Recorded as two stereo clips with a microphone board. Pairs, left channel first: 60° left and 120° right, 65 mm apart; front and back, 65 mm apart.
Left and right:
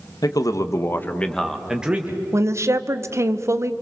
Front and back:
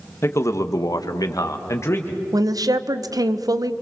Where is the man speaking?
50° left, 1.7 m; by 2.2 s 55° right, 2 m.